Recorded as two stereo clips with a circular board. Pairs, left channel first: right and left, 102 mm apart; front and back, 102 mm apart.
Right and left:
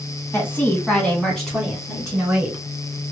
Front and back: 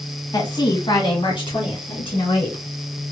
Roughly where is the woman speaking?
Ahead right.